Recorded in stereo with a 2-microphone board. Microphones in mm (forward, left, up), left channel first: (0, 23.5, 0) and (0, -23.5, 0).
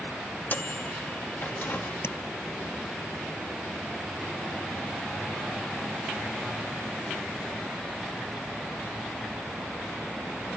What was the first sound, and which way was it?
A microwave, 45° left (ahead or behind).